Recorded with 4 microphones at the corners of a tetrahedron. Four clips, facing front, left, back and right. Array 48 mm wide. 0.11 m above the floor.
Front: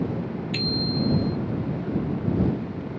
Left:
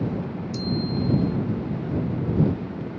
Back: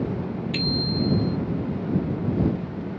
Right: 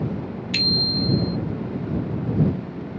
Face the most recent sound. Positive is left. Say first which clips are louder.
# right 6 dB, even
turn(degrees=-90)